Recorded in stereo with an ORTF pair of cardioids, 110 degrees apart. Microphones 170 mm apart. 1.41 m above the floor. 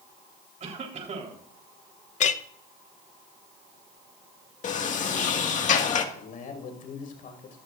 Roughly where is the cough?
Ahead right.